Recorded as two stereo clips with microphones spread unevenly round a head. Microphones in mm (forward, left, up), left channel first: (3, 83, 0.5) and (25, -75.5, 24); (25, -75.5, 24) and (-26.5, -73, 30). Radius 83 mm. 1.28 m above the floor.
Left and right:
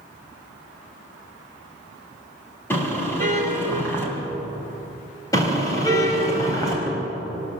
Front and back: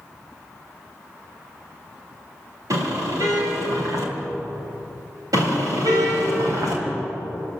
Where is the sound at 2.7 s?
Straight behind, 3.5 m.